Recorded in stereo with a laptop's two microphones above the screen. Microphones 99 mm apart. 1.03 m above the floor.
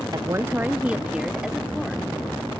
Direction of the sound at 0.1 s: 45° right (ahead or behind).